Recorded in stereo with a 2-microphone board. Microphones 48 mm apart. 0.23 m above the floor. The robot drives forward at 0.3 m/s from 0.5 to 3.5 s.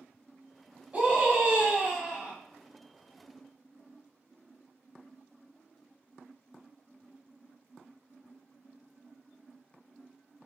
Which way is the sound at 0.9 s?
30° right (ahead or behind).